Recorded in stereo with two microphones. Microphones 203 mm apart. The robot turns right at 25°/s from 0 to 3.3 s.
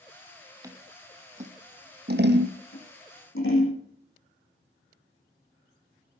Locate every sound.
0.6 s scissors: 15° right (ahead or behind), 1.6 m; by 2.6 s 65° right (ahead or behind), 1.6 m
2.7 s scissors: 75° left (ahead or behind), 8.5 m; by 3.8 s 85° left, 8.5 m